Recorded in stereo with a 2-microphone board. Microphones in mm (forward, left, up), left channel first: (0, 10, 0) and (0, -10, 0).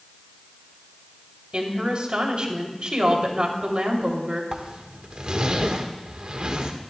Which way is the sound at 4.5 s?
55° right (ahead or behind).